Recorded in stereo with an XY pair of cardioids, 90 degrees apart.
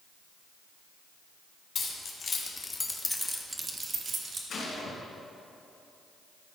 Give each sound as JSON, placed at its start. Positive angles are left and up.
{"t": 1.8, "sound": "keys jangling", "azimuth_deg": 55, "distance_m": 2.5}
{"t": 4.5, "sound": "a gunshot", "azimuth_deg": 55, "distance_m": 3.5}